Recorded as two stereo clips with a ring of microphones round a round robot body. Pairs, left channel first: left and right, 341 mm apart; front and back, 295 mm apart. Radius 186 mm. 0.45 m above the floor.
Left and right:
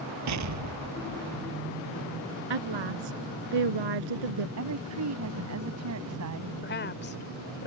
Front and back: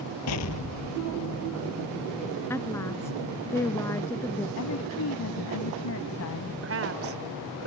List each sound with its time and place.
0.3 s an explosion: 45° right
2.5 s a woman speaking: 85° right
4.6 s a woman speaking: 45° right
6.6 s a woman speaking: 145° left